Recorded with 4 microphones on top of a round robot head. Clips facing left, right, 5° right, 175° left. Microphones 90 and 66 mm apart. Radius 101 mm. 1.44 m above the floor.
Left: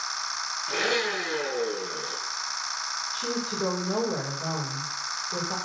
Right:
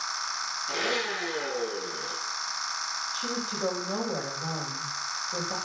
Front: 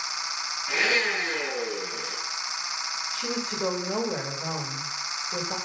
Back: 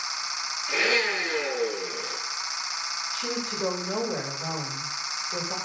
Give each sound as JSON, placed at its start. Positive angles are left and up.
{"t": 0.7, "sound": "a blender", "azimuth_deg": 65, "distance_m": 8.5}
{"t": 3.1, "sound": "a woman speaking", "azimuth_deg": 80, "distance_m": 6.5}